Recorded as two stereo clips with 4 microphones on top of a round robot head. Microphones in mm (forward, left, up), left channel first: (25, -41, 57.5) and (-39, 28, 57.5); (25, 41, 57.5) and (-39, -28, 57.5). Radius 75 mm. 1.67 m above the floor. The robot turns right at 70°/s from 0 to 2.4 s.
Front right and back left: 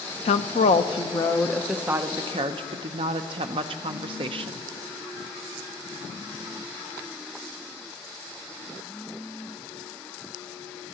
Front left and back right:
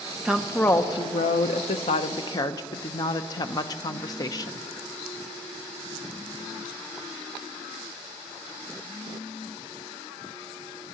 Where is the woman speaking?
55° right, 0.5 m; by 4.7 s 100° left, 0.5 m.